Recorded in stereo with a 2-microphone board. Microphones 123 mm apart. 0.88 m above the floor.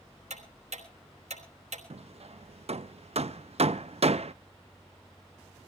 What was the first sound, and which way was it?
Ticking, 70° right (ahead or behind).